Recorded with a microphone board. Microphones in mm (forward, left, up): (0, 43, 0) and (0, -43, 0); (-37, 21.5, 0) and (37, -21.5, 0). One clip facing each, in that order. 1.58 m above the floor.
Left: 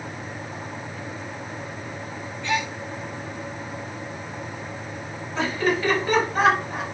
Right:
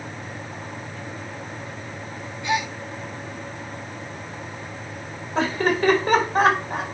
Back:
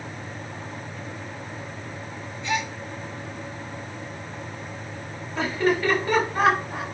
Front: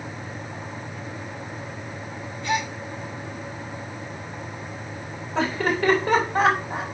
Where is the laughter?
45° right, 3 m.